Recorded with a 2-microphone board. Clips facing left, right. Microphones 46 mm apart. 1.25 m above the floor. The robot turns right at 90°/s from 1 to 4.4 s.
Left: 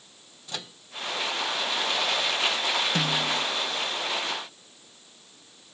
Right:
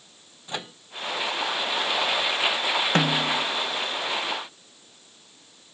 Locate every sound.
0.5 s a microwave: 25° right (ahead or behind)
3.0 s a snare drum: 55° right; by 3.5 s 10° right